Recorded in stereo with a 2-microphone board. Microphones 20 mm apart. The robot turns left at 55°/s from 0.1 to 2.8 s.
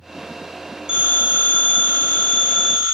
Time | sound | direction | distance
0.9 | a phone ringing | 45° right | 1.9 m